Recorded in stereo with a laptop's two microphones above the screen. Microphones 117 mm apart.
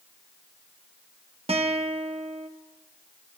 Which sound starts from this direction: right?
A guitar, at 1.5 s.